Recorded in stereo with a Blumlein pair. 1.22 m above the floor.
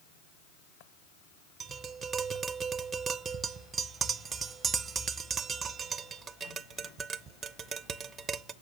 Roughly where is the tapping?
Ahead right.